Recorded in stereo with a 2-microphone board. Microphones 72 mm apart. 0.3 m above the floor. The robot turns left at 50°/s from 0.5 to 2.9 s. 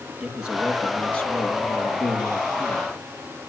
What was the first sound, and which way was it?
A man speaking, 165° right.